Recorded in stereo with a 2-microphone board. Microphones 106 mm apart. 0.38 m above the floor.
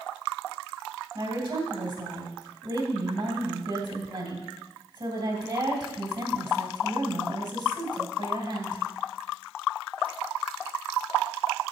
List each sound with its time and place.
1.1 s a woman speaking: 45° right (ahead or behind), 2.5 m